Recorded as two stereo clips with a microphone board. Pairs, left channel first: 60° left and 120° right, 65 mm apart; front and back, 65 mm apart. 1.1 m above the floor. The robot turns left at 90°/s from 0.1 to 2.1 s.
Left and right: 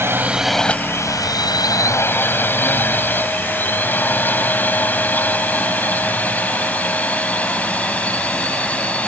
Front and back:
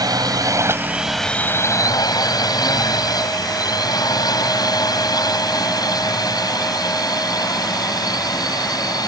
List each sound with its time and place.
0.0 s a drone: 175° right; by 9.1 s 10° right